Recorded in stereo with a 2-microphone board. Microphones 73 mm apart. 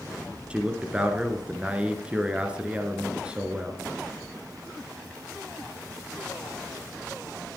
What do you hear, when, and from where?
0.5 s a man speaking: 15° right (ahead or behind), 1.5 m